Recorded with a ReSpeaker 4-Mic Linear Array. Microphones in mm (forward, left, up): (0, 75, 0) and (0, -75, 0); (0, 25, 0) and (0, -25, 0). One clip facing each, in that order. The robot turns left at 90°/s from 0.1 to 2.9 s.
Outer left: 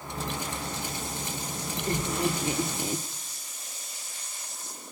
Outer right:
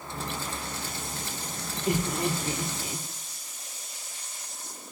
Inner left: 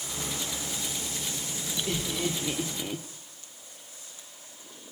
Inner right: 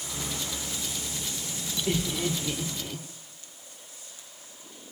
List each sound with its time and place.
1.9 s laughter: 15° right (ahead or behind), 1.4 m; by 3.0 s 35° left (ahead or behind), 1.4 m